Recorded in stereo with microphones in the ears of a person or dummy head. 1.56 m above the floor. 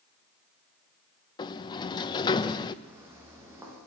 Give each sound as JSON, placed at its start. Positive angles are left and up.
{"t": 1.4, "sound": "a sliding door", "side_deg": 25, "distance_m": 1.0}
{"t": 2.8, "sound": "footsteps", "side_deg": -10, "distance_m": 4.5}